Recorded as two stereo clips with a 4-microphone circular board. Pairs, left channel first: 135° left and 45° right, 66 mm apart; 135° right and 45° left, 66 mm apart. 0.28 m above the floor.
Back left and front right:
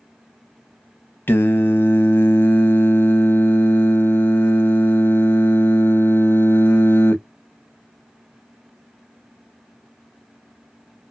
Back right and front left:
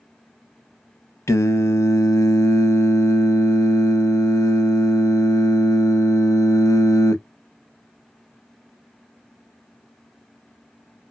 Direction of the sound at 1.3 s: 170° right.